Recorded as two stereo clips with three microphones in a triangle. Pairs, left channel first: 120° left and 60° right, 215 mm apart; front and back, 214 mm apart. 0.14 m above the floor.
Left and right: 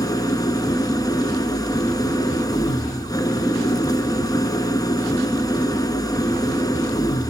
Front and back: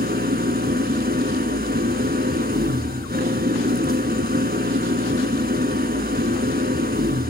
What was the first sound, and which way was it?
An engine running, 175° right.